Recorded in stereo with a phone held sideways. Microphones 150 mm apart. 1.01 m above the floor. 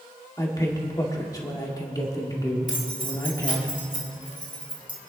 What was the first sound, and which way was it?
A man speaking, 25° left (ahead or behind).